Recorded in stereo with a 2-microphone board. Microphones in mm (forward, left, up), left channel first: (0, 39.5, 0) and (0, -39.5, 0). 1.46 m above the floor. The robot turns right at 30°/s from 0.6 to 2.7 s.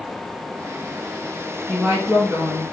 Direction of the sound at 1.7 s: 175° left.